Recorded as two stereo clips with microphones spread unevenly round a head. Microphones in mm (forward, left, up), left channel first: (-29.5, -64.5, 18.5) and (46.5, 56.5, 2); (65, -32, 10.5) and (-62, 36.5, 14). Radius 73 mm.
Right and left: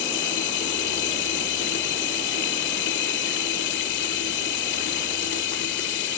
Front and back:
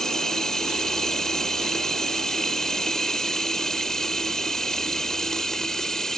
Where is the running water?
115° right.